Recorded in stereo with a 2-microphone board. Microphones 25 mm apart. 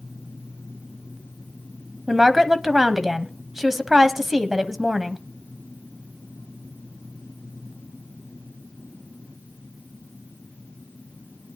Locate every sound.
2.1 s a woman speaking: 10° right (ahead or behind), 1.1 m